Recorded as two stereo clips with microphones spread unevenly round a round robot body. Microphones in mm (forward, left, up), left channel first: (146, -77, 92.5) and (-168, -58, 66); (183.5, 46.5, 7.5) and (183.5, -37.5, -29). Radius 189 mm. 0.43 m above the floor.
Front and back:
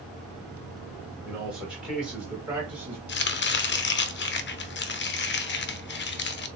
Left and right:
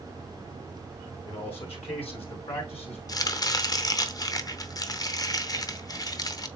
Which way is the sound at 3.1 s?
35° left.